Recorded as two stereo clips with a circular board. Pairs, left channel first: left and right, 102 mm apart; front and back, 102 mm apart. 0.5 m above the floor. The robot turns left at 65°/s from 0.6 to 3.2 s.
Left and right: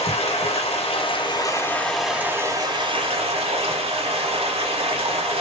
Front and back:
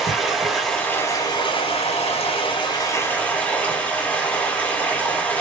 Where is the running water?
90° left, 1.0 m; by 5.4 s 80° right, 1.0 m.